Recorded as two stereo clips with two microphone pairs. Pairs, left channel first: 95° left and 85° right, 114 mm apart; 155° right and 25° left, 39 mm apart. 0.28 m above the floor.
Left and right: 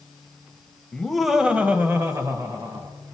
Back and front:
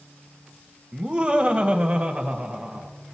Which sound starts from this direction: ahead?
Laughter, at 0.9 s.